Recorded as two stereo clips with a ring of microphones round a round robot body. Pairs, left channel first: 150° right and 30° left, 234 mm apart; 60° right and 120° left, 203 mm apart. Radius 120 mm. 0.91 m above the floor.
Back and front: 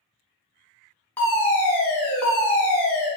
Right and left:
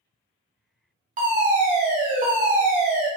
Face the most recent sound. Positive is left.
turn(degrees=135)